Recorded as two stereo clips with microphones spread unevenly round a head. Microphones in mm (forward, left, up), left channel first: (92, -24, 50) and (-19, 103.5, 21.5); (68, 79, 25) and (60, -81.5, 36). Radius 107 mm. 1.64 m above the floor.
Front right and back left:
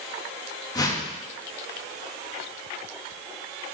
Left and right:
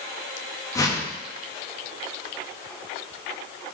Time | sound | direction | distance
0.8 | a whoosh | 15° left | 2.0 m